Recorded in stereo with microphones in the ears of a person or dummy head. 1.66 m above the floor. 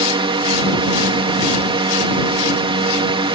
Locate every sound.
0.0 s a drone: 30° right (ahead or behind)